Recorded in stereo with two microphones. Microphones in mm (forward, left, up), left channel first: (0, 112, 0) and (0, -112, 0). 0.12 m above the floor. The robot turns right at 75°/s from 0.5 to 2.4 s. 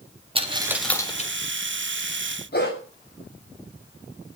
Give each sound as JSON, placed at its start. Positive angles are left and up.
{"t": 0.3, "sound": "a dropped coin", "side_deg": -25, "distance_m": 3.5}
{"t": 2.5, "sound": "a dog barking", "side_deg": 50, "distance_m": 8.0}